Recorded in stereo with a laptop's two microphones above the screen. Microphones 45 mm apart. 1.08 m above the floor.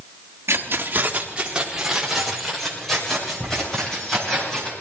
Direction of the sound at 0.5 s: 65° right (ahead or behind).